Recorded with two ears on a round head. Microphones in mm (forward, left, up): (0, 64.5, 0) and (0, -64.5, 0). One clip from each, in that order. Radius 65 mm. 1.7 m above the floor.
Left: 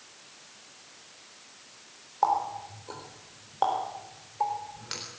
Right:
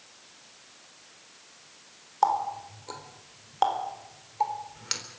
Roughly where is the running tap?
Right.